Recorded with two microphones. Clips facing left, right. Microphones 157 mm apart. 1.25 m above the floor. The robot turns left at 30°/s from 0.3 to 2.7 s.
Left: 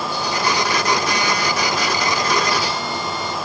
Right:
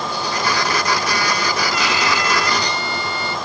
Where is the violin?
80° right; by 3.4 s 110° right.